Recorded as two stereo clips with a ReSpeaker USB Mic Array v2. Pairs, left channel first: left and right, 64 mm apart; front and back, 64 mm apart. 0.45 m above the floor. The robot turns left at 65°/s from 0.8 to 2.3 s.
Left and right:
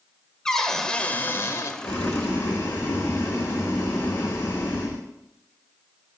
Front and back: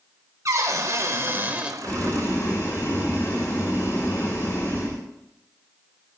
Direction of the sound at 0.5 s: 170° left.